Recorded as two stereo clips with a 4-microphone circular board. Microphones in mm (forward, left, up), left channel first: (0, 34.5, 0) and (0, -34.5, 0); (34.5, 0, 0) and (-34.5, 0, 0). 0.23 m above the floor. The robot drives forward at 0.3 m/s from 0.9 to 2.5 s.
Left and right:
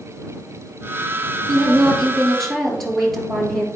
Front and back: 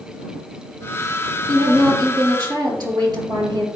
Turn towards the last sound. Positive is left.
turn(degrees=175)